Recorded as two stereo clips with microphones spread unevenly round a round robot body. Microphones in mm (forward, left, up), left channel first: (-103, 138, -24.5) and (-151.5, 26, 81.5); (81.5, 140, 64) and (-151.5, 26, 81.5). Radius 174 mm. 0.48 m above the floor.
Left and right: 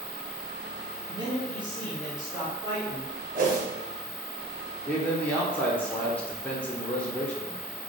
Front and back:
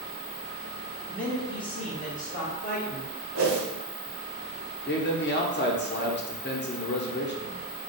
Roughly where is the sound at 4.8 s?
Ahead left.